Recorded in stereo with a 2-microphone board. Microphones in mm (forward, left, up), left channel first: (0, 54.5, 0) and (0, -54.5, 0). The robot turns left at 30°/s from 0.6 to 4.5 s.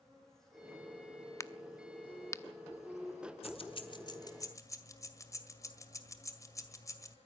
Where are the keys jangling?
60° left (ahead or behind), 1.8 m; by 7.2 s 30° left (ahead or behind), 1.8 m.